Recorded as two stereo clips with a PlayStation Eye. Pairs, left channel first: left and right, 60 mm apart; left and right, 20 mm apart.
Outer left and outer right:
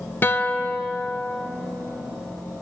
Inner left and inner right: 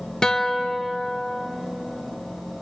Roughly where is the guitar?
Left.